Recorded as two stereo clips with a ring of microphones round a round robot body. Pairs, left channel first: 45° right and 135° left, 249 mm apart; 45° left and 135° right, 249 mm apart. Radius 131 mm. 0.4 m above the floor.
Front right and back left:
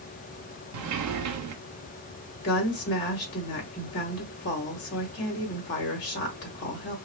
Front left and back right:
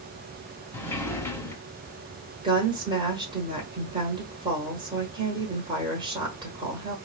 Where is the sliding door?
125° left, 0.6 m.